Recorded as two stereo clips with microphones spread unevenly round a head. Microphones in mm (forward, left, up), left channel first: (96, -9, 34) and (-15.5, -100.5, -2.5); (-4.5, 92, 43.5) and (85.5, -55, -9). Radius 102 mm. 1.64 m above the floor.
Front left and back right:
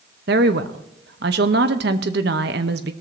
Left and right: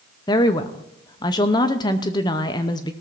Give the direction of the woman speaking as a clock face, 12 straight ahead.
6 o'clock.